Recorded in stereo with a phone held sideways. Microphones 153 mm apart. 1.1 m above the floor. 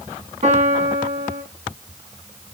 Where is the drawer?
No drawer in this recording.